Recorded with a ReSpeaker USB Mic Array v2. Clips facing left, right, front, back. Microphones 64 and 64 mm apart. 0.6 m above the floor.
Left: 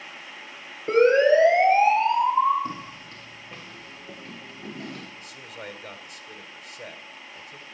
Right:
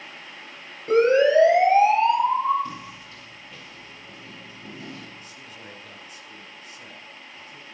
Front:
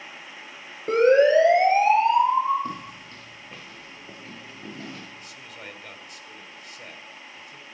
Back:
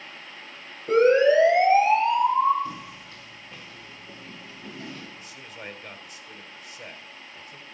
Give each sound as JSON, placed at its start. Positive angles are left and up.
{"t": 0.9, "sound": "a siren", "azimuth_deg": 30, "distance_m": 9.5}
{"t": 2.6, "sound": "footsteps", "azimuth_deg": 35, "distance_m": 1.9}
{"t": 5.2, "sound": "a man speaking", "azimuth_deg": 95, "distance_m": 2.5}